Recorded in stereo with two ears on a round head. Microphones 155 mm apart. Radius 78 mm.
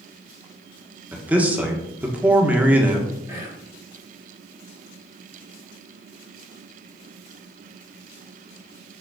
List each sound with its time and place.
1.1 s a man speaking: 10° right (ahead or behind), 1.4 m
3.3 s whispering: 15° right (ahead or behind), 3 m